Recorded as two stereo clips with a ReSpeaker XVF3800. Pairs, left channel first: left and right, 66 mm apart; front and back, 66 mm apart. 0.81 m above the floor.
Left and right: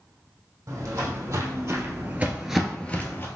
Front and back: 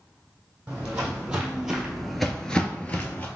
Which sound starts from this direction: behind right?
Footsteps, at 0.7 s.